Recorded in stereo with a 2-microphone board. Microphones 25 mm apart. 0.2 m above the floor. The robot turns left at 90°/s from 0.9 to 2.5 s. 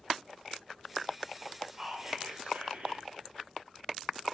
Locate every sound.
1.7 s whispering: 5° right, 4.5 m; by 3.0 s 75° right, 4.5 m